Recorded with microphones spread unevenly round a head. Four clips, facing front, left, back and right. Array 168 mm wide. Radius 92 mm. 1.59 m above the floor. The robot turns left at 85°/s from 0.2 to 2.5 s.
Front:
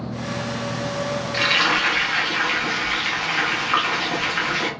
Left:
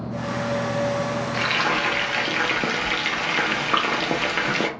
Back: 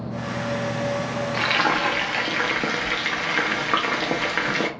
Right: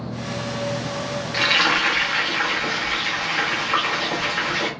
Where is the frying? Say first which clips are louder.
Right 5 dB, even; 145° right, 0.7 m; by 4.7 s 120° left, 0.7 m.